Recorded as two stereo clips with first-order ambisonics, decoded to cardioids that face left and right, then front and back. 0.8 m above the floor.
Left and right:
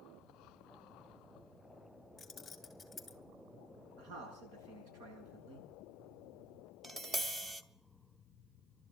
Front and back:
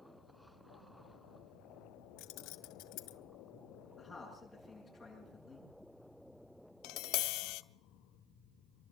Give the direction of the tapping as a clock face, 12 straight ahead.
1 o'clock.